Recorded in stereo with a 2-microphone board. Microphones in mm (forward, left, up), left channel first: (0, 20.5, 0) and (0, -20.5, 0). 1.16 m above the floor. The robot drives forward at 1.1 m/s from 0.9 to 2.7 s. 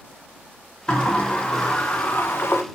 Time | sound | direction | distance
0.9 | a sliding door | 25° left (ahead or behind) | 2 m